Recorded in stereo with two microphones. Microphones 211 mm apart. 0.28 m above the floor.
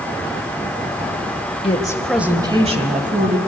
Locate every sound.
1.6 s a woman speaking: 30° left (ahead or behind), 1.2 m; by 3.4 s 45° right (ahead or behind), 2 m